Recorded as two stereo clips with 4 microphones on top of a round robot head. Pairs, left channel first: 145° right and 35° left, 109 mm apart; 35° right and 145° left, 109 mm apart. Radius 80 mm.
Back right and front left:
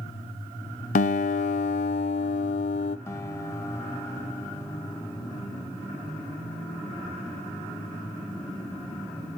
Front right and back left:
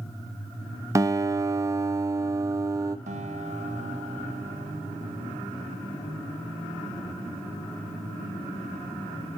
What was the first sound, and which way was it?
A guitar, 150° right.